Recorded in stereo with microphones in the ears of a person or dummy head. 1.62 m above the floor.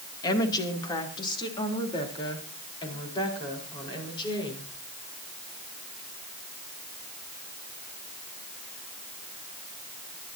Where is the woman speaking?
30° left (ahead or behind), 2.5 m; by 4.7 s 35° left (ahead or behind), 6 m.